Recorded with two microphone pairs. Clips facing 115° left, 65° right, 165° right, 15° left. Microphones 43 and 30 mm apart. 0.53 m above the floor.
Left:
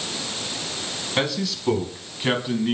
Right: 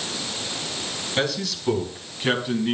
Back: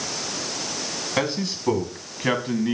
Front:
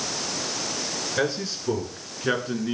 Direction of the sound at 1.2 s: 170° right.